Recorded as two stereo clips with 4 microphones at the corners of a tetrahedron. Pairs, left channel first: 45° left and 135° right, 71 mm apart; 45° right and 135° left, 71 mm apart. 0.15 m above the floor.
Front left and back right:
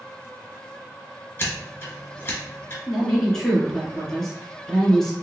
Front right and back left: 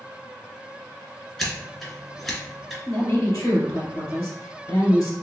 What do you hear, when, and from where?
1.4 s scissors: 35° left, 1.5 m
2.9 s a woman speaking: 35° right, 1.5 m